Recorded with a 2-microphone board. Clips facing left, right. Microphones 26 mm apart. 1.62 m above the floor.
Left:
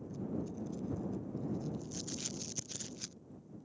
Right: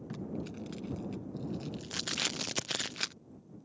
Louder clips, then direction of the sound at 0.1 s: Even; 80° right.